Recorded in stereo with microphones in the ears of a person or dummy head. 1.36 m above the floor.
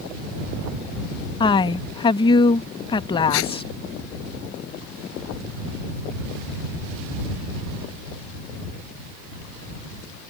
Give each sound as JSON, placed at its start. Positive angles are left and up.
{"t": 1.4, "sound": "a woman speaking", "side_deg": 25}
{"t": 3.3, "sound": "tape being pulled", "side_deg": 85}